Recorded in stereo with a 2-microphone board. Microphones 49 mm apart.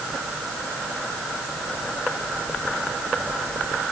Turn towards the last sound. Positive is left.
No sound to turn to.